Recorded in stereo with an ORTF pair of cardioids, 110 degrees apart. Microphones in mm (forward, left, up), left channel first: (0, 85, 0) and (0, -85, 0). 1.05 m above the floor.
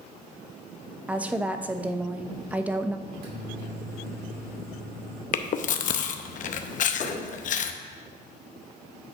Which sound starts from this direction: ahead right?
A microwave, at 3.1 s.